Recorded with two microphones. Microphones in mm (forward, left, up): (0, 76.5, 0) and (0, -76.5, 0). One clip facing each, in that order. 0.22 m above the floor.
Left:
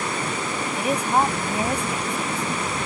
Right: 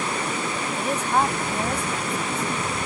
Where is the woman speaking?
10° left (ahead or behind).